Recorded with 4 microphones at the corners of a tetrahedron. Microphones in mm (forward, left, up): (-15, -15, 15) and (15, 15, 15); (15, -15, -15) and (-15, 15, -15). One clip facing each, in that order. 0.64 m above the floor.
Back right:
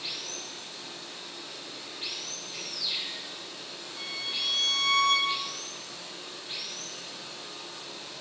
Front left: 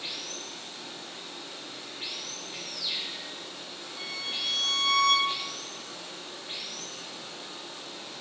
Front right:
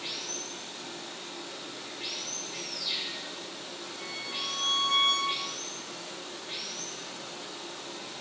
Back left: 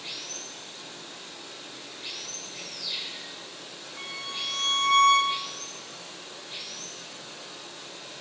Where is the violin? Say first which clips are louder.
Back right 1 dB, back left 3 dB; 135° left, 2.5 m.